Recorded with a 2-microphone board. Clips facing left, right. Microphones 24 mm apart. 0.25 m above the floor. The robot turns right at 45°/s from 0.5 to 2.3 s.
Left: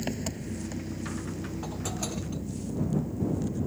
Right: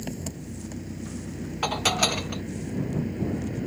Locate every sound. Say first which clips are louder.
0.0 s an engine running: left 2 dB; 160° left; by 3.7 s 115° right
1.6 s dishes clattering: right 15 dB; 85° right; by 2.4 s 55° right